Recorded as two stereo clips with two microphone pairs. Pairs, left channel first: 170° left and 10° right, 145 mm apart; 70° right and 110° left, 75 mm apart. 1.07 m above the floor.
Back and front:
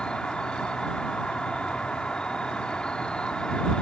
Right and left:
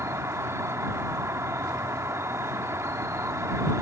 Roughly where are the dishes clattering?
I don't hear dishes clattering.